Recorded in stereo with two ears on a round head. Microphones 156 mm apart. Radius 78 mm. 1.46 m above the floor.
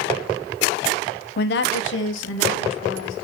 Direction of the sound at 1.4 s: 60° left (ahead or behind).